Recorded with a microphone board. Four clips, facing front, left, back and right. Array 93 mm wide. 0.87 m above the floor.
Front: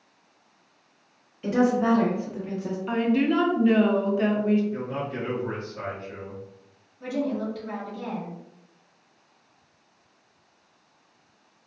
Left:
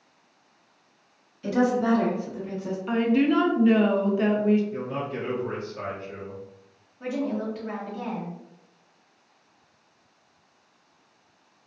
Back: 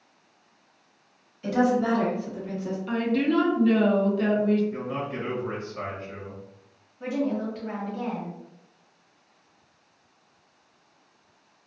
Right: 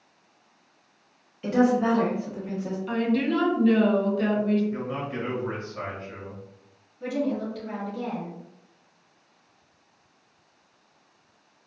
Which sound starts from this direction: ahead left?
A woman speaking, at 2.9 s.